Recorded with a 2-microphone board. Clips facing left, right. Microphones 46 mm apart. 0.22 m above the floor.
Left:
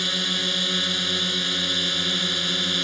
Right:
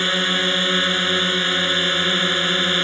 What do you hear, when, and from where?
0.0 s a drone: 35° right (ahead or behind)